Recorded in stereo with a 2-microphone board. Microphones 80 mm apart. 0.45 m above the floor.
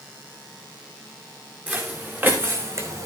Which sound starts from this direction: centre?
Footsteps, at 1.7 s.